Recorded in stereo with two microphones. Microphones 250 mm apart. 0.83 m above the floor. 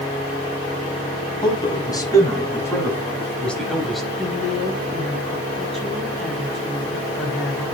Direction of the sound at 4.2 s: Centre (ahead or behind).